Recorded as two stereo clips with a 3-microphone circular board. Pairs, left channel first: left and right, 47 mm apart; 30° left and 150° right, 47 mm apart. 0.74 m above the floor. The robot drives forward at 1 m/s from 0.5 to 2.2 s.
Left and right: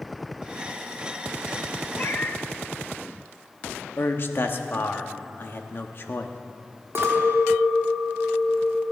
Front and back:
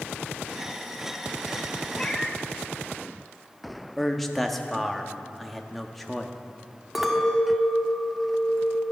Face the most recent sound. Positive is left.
turn(degrees=-65)